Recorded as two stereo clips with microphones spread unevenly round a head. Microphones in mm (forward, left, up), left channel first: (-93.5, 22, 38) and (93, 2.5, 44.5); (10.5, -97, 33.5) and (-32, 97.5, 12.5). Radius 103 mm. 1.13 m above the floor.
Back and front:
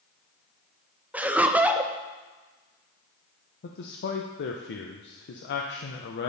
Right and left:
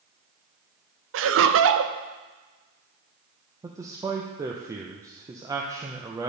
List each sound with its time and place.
1.1 s laughter: 75° left, 0.7 m
3.6 s a man speaking: 170° left, 0.7 m